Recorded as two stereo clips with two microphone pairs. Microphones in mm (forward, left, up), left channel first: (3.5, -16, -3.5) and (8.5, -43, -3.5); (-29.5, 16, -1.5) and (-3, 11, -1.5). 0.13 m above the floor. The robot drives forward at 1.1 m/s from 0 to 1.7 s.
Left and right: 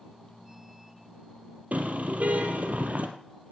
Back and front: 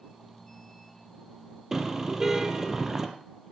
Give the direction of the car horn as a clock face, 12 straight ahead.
3 o'clock.